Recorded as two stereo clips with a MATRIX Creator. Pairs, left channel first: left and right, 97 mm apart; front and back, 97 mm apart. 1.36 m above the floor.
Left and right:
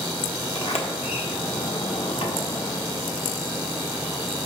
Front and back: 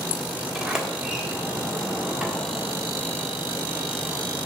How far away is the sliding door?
About 1.4 m.